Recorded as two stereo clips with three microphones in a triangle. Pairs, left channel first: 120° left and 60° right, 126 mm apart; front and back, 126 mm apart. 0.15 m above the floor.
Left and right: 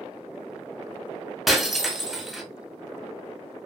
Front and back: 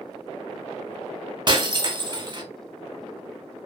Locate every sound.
1.5 s breaking glass: 150° right, 0.7 m